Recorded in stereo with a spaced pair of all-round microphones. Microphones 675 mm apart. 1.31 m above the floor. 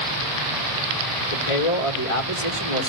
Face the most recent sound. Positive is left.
turn(degrees=50)  # may be behind; listen again after turning